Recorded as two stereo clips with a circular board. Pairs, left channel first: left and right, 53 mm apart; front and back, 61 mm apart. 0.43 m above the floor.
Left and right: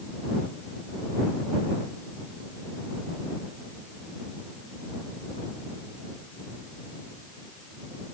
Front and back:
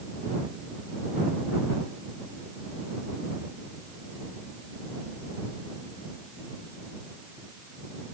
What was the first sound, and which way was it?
Only background noise.